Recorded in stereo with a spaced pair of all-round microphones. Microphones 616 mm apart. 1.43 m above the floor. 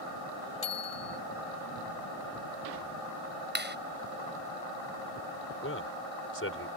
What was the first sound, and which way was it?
A bicycle bell, 65° left (ahead or behind).